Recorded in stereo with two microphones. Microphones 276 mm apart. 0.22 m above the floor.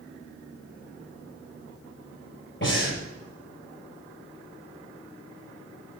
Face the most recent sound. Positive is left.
turn(degrees=45)  # may be behind; listen again after turning